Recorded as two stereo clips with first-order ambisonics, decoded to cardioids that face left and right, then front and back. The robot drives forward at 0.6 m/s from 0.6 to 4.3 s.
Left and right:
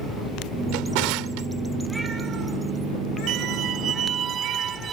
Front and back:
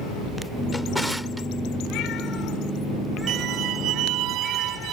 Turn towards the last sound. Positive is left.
turn(degrees=-150)